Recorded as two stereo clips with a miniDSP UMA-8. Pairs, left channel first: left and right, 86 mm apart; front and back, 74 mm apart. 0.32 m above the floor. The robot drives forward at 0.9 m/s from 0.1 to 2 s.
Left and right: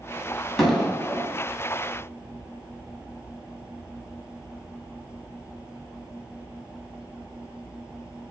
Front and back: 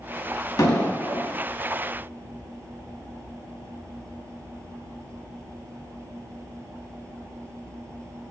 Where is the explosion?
Straight ahead, 2 m; by 1.3 s 5° left, 1.7 m.